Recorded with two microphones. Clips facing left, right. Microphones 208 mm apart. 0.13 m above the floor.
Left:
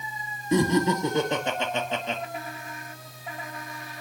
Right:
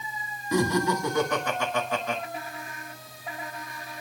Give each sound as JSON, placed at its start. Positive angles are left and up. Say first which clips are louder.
{"t": 0.5, "sound": "laughter", "louder": "left 2 dB", "side_deg": 25, "distance_m": 1.9}